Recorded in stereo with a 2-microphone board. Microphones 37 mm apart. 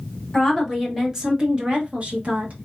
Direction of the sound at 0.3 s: Centre (ahead or behind).